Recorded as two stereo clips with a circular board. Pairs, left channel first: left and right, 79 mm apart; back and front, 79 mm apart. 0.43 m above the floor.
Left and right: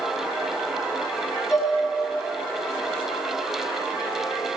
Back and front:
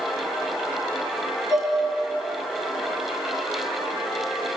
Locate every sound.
1.5 s dishes clattering: 140° left, 3.5 m